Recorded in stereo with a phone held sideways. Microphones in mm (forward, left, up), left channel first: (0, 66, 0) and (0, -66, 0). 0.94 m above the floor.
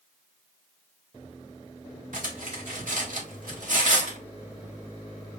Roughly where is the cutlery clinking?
Right.